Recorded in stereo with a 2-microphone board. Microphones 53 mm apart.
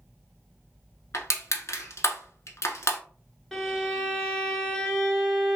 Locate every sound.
1.1 s crushing: 75° left (ahead or behind), 0.7 m
3.5 s a violin: 5° left (ahead or behind), 1.1 m